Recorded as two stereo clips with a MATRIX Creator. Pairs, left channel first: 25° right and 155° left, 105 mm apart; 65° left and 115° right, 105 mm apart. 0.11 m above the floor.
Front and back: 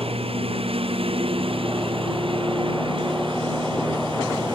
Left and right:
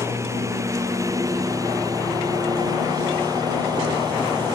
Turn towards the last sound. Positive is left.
turn(degrees=-165)